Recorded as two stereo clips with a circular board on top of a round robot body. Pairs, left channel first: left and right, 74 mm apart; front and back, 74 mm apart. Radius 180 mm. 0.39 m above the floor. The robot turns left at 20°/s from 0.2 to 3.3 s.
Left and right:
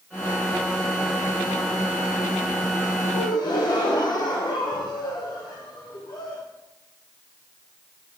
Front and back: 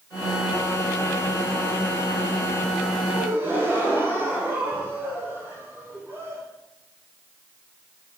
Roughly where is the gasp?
Behind left.